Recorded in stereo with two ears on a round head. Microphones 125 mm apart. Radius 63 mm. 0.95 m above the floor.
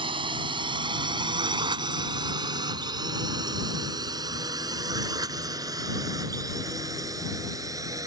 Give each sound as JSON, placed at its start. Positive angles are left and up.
{"t": 0.0, "sound": "a drone", "side_deg": -35}